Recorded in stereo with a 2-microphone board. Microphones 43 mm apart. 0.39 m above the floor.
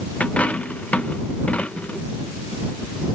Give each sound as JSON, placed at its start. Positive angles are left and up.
{"t": 0.2, "sound": "a dropped coin", "side_deg": 35}